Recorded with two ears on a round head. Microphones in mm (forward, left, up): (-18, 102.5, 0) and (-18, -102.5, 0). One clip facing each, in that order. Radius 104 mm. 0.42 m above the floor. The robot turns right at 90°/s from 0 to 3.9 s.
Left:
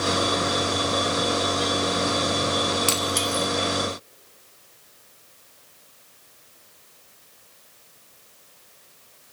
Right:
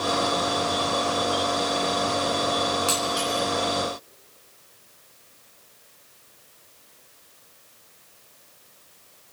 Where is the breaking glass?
35° left (ahead or behind), 1.5 m; by 3.5 s 85° left, 1.5 m.